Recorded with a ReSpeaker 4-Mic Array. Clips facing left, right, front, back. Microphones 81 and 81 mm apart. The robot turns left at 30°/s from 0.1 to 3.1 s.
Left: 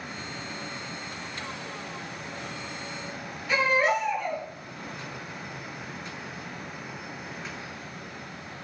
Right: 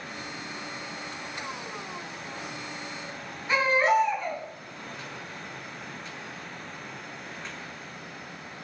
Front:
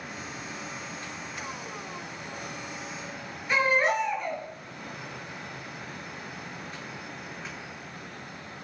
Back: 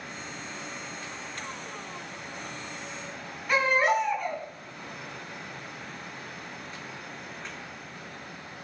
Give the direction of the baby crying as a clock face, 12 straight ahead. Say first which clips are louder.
Right 1 dB, back 1 dB; 5 o'clock.